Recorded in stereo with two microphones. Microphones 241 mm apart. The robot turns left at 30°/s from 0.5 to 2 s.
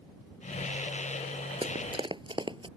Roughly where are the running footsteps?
Right.